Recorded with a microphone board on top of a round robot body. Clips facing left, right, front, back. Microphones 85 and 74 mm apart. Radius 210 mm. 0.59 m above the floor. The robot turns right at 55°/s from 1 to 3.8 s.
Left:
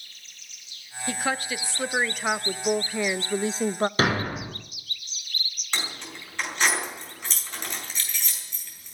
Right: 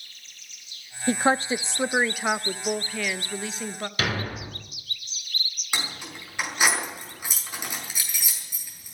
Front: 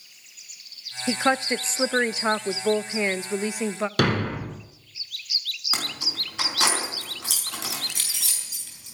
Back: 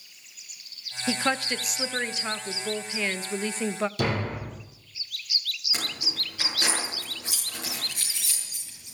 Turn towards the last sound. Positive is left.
turn(degrees=-10)